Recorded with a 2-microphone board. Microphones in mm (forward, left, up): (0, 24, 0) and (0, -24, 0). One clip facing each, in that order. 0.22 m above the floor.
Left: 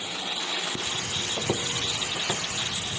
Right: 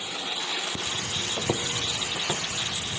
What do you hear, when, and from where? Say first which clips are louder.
1.4 s footsteps: even; 15° right (ahead or behind), 0.6 m; by 3.0 s 5° right (ahead or behind), 1.5 m